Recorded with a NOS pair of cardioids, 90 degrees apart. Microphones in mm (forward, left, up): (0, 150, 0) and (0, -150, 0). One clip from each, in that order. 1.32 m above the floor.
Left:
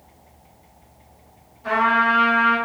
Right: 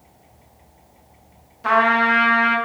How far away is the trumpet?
About 0.9 m.